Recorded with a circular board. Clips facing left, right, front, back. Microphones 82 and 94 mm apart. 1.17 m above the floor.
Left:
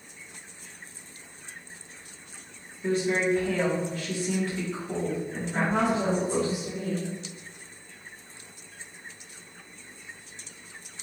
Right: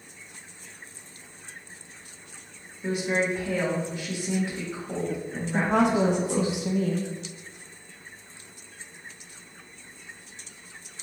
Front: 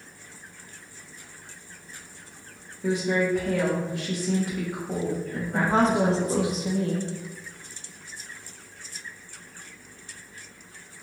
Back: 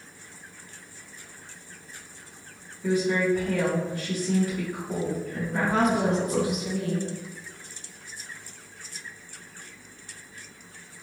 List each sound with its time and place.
2.8 s a woman speaking: 15° right, 1.2 m
5.5 s a woman speaking: 60° right, 0.5 m